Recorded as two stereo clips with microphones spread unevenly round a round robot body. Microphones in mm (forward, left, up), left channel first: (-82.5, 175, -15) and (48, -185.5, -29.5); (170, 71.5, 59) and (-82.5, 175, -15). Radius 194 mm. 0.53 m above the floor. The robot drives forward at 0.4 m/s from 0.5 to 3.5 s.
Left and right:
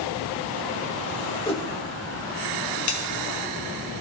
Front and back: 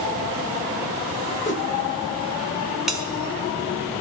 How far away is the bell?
About 1.5 m.